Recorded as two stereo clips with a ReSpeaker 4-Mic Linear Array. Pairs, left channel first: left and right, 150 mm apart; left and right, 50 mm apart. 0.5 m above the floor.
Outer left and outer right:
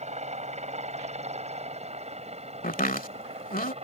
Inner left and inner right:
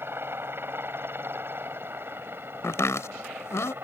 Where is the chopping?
70° left (ahead or behind).